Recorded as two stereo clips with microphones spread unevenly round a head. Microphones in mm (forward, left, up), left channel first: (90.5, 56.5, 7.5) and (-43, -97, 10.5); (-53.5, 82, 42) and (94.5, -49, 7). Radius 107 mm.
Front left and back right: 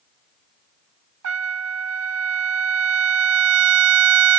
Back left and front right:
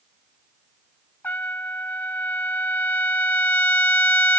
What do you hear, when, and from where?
1.2 s a trumpet: 145° right